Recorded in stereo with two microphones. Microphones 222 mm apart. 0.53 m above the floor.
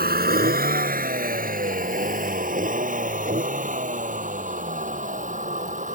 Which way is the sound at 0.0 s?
45° right (ahead or behind).